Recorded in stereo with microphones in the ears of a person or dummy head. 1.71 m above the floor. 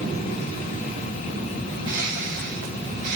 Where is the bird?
50° right (ahead or behind), 6.5 m.